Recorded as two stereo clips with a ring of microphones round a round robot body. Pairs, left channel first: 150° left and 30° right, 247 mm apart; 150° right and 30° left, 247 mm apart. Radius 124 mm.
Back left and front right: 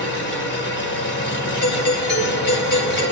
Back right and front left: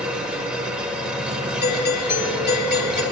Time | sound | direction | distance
0.0 | an engine running | 115° left | 1.3 m
1.6 | a doorbell | 175° left | 2.5 m